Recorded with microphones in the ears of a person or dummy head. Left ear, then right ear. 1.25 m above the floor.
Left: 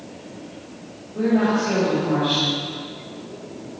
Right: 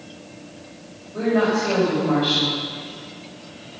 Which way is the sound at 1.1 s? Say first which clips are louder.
Right 1 dB; 65° right (ahead or behind).